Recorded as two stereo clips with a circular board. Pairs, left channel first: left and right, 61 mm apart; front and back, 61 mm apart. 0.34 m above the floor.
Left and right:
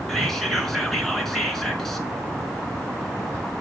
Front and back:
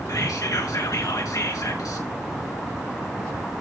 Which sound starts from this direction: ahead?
Whispering, at 0.1 s.